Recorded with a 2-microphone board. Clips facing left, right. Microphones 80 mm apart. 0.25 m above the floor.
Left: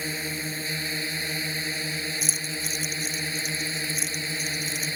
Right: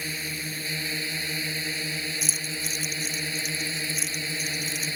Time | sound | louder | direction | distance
0.0 | a drone | left 3 dB | 30° left (ahead or behind) | ?
2.2 | keys jangling | left 1 dB | centre (ahead or behind) | ?